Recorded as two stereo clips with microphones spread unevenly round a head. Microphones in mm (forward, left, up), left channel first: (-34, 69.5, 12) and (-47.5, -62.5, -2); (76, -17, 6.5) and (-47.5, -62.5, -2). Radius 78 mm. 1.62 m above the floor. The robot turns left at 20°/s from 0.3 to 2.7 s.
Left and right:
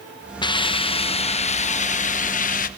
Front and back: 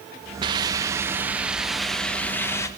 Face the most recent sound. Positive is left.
turn(degrees=90)